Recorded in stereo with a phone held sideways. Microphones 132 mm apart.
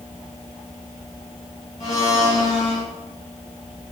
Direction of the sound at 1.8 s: 55° left (ahead or behind).